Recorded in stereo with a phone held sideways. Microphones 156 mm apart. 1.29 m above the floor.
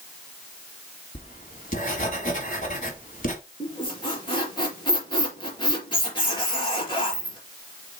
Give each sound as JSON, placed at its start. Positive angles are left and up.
{"t": 1.1, "sound": "writing", "side_deg": 55, "distance_m": 3.5}
{"t": 3.6, "sound": "a squeak", "side_deg": 30, "distance_m": 4.0}